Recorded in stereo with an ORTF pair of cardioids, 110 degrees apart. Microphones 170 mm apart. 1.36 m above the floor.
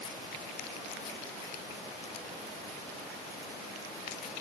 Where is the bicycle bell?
No bicycle bell in this recording.